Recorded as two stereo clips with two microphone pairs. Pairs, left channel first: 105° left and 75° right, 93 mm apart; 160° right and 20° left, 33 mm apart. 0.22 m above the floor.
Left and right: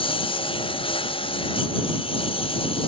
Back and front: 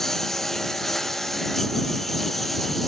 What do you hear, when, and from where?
0.0 s a lawn mower: 125° left; by 2.9 s 120° left